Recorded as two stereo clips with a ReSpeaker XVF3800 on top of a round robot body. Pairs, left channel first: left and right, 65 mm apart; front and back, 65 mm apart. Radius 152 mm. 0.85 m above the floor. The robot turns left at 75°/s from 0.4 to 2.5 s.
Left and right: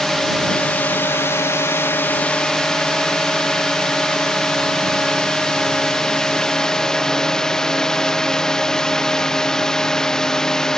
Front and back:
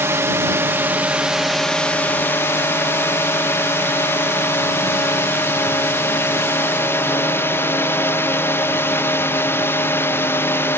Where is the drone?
175° left; by 10.8 s 15° left.